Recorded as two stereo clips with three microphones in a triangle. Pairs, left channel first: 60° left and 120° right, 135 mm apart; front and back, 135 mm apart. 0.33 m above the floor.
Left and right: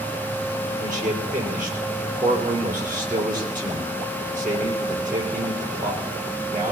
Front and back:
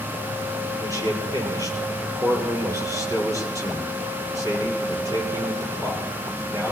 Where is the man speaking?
115° right, 7.5 m.